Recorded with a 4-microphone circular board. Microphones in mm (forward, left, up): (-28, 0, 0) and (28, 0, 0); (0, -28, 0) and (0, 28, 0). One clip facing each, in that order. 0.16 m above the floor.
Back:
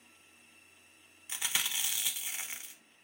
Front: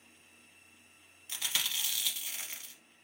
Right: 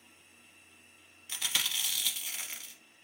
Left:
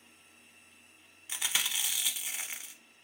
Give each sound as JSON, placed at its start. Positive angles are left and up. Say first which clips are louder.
{"t": 1.3, "sound": "chewing", "louder": "back 1 dB, left 1 dB", "azimuth_deg": 145, "distance_m": 0.7}